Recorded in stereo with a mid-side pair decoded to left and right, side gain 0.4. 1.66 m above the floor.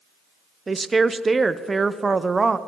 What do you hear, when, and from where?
0.7 s a woman speaking: 30° right, 0.8 m